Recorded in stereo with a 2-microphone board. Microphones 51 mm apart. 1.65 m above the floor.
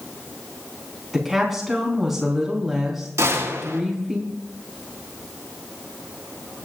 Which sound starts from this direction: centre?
A woman speaking, at 1.1 s.